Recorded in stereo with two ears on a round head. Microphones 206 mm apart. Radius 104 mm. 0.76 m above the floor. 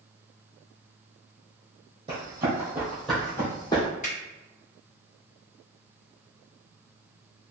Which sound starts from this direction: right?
Running footsteps, at 2.1 s.